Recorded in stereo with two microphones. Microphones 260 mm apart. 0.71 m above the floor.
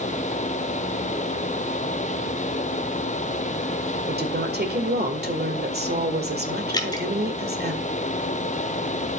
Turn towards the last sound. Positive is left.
turn(degrees=15)  # may be behind; listen again after turning